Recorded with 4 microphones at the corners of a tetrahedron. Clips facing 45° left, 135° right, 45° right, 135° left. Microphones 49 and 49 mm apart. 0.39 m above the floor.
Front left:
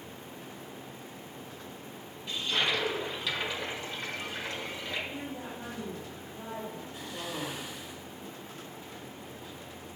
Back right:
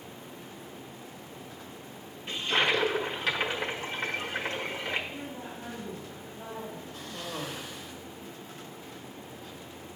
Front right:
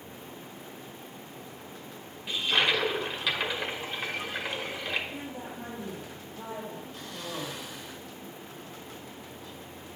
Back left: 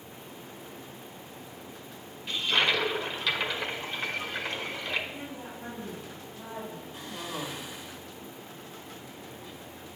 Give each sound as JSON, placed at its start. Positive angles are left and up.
{"t": 2.3, "sound": "a toilet flushing", "azimuth_deg": -120, "distance_m": 1.0}
{"t": 5.1, "sound": "a woman speaking", "azimuth_deg": -15, "distance_m": 2.5}
{"t": 6.9, "sound": "a cough", "azimuth_deg": 90, "distance_m": 1.6}